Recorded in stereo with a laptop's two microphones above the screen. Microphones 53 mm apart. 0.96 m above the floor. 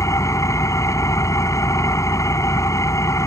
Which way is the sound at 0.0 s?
85° left.